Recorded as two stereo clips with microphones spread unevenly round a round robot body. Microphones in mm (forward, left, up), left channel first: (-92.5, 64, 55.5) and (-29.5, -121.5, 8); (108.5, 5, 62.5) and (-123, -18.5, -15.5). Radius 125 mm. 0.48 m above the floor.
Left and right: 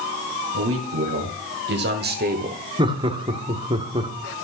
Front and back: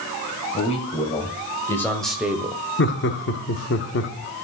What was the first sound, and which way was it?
A man speaking, 60° right.